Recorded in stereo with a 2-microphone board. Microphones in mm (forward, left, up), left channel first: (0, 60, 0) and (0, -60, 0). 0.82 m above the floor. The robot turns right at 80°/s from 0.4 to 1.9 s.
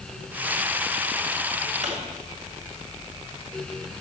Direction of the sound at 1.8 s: 70° right (ahead or behind).